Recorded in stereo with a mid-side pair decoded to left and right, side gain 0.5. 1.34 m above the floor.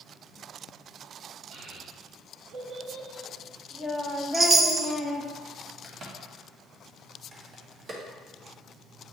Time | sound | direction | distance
1.5 | a child speaking | 65° right | 2.5 m
4.3 | a chime | 30° right | 0.8 m
5.8 | a crack | 40° right | 1.9 m